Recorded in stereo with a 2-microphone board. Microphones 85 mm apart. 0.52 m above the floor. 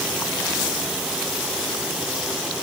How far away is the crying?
No crying in this recording.